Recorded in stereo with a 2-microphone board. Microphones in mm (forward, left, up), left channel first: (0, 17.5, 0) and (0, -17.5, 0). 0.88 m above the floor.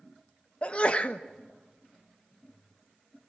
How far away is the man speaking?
No man speaking in this recording.